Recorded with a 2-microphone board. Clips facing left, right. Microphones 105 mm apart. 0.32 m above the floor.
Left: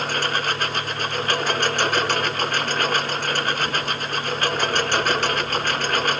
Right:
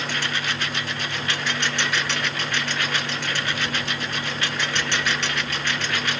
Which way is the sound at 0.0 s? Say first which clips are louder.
Left 4 dB; 45° left (ahead or behind).